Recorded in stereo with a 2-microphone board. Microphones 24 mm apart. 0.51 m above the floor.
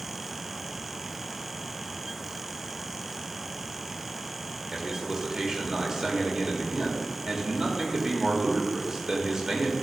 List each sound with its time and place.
4.7 s a man speaking: 25° right (ahead or behind), 1.2 m